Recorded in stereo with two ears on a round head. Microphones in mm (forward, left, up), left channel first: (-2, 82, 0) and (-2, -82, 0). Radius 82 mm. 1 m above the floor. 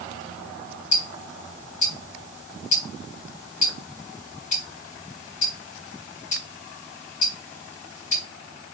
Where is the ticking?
45° left (ahead or behind), 4 m.